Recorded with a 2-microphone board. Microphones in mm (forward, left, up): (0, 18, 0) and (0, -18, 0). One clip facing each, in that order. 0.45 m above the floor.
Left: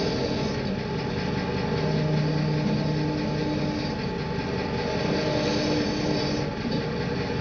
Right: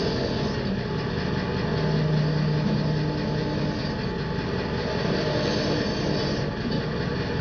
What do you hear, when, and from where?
0.0 s an engine running: 20° right (ahead or behind), 3 m